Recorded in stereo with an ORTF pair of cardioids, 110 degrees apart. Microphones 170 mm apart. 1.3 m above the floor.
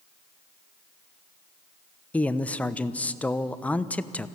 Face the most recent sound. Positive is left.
turn(degrees=10)